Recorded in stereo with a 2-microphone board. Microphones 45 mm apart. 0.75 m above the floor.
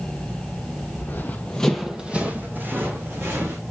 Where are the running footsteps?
55° left (ahead or behind), 1.2 m; by 3.6 s 55° right (ahead or behind), 3 m.